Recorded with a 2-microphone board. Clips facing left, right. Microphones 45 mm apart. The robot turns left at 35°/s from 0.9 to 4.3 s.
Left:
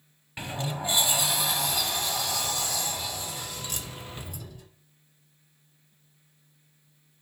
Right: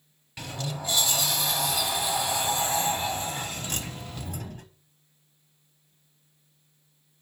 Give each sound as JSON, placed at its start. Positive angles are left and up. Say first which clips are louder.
{"t": 0.4, "sound": "a sliding door", "louder": "left 2 dB", "azimuth_deg": 30, "distance_m": 0.7}